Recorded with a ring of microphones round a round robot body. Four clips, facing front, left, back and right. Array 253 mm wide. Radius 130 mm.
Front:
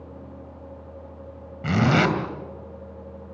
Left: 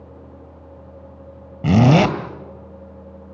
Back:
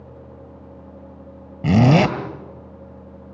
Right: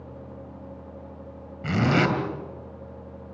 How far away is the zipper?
About 2 m.